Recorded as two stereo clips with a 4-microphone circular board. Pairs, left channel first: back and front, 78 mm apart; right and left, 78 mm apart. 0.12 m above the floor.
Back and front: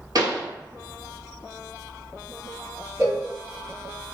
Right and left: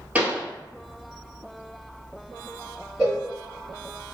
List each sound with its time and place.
0.1 s a pop: 20° left, 0.9 m
3.0 s a cowbell: 15° left, 1.9 m